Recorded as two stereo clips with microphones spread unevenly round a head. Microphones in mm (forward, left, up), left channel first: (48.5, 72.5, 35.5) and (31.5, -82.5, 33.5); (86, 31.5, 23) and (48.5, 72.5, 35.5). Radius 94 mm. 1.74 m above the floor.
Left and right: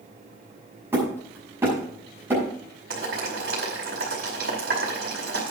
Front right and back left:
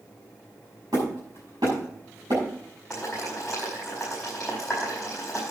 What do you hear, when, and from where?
0.9 s hammering: 175° right, 6.5 m
2.9 s boiling: 140° right, 5 m